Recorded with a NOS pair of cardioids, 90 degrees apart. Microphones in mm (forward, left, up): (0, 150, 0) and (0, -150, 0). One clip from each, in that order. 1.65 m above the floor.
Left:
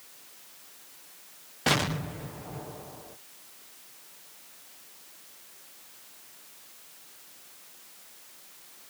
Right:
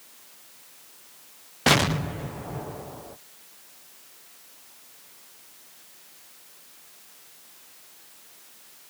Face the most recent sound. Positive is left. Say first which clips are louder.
# right 6 dB
turn(degrees=-30)